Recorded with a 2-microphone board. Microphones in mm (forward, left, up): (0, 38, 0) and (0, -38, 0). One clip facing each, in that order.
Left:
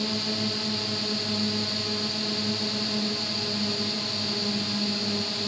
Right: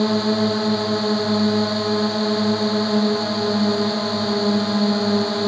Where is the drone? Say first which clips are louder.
Right 12 dB; 45° right (ahead or behind).